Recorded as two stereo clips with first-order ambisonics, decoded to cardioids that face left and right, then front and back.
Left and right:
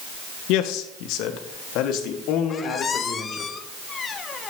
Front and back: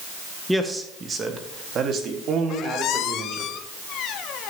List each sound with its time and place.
0.5 s a man speaking: 90° left, 0.7 m; by 3.5 s 135° left, 2.5 m
2.5 s a squeak: 30° left, 0.6 m